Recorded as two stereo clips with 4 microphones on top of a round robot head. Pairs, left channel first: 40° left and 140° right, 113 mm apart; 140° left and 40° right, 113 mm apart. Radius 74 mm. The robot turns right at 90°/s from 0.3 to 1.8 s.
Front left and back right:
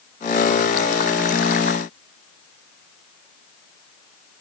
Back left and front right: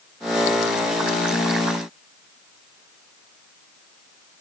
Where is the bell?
No bell in this recording.